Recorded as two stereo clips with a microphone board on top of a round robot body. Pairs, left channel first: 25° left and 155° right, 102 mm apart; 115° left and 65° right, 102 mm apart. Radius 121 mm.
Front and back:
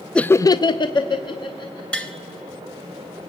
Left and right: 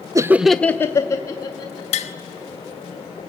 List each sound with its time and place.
0.1 s laughter: 55° right, 0.5 m; by 1.8 s 65° left, 1.7 m
1.9 s tapping: 105° left, 0.8 m